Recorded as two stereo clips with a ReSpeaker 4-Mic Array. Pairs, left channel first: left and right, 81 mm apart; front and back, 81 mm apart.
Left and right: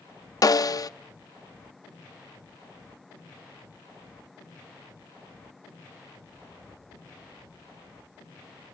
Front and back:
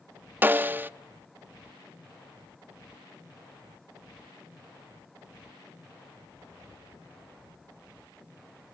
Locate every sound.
0.4 s a snare drum: 120° left, 0.6 m